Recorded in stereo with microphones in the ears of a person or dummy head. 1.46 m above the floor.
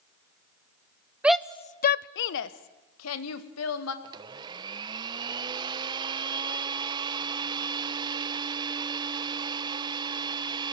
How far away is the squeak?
I don't hear a squeak.